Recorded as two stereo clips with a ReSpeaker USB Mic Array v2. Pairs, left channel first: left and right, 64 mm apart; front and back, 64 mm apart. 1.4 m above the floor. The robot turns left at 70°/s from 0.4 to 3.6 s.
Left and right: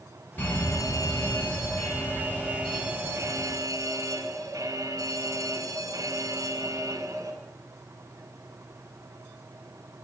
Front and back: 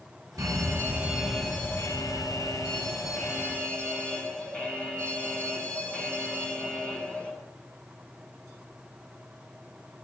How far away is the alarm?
About 8 m.